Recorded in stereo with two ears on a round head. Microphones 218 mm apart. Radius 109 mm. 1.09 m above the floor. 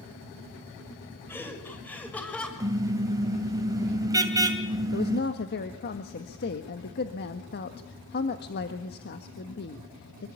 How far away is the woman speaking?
About 1.6 m.